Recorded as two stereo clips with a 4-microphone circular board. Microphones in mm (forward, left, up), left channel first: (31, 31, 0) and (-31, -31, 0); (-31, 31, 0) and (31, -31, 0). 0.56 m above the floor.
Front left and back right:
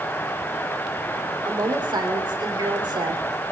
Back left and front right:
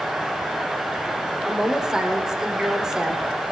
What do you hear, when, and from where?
1.4 s a woman speaking: 125° right, 2 m